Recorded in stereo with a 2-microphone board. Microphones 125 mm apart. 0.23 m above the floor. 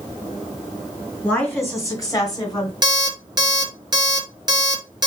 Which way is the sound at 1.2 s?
15° left (ahead or behind).